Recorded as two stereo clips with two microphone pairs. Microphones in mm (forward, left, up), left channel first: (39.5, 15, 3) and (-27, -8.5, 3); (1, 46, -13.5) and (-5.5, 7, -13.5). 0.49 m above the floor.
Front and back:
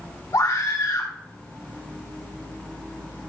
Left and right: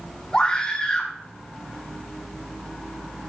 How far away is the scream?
About 1.5 m.